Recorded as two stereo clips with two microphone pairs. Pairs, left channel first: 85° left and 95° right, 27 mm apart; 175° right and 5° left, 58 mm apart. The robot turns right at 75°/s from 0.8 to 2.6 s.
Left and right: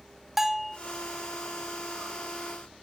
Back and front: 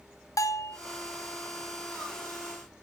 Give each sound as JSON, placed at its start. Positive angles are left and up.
{"t": 0.4, "sound": "a bell", "azimuth_deg": -170, "distance_m": 0.6}